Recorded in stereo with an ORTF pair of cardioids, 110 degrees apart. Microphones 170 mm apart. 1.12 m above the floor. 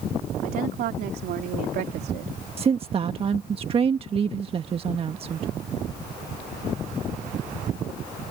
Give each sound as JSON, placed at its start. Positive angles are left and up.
{"t": 0.4, "sound": "a woman speaking", "azimuth_deg": -65}
{"t": 2.6, "sound": "a woman speaking", "azimuth_deg": -35}